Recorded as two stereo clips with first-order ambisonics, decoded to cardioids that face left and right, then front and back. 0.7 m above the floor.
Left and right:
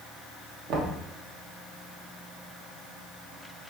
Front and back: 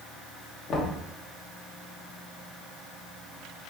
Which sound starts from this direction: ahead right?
Knocking, at 0.7 s.